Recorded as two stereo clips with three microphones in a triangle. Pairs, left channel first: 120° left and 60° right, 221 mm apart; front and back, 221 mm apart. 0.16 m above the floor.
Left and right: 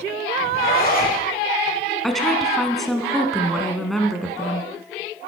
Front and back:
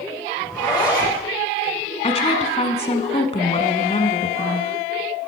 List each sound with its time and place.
0.4 s a zipper: 75° left, 4.5 m
2.0 s a woman speaking: 30° left, 1.2 m